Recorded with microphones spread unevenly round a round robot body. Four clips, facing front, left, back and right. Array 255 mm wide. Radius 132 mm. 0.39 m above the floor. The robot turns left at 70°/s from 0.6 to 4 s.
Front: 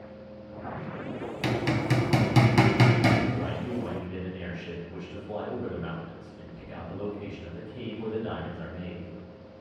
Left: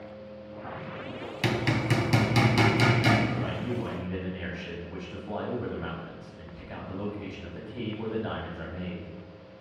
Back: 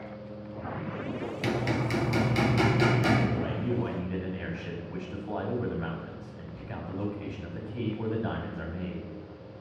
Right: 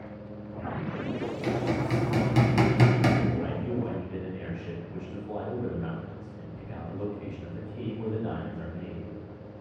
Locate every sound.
1.4 s hammering: 80° left, 1.5 m; by 3.2 s 45° right, 1.5 m
3.3 s a man speaking: 170° right, 2 m; by 9.1 s 145° left, 2 m